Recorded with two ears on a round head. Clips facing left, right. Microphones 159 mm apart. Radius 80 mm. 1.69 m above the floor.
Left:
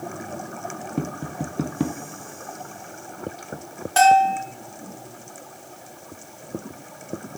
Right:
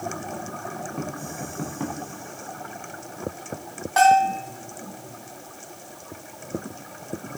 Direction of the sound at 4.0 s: 40° left (ahead or behind).